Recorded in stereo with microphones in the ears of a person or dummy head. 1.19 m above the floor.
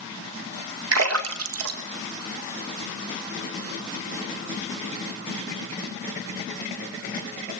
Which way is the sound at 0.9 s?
85° right.